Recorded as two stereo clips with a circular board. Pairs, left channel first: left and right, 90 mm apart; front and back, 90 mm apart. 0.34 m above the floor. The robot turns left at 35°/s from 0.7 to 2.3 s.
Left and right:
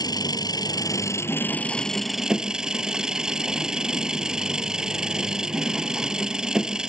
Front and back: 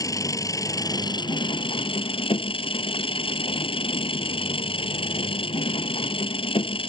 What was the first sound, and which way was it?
An engine running, 50° left.